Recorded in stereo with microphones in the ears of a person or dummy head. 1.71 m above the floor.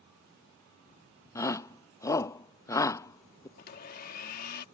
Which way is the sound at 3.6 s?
55° left (ahead or behind).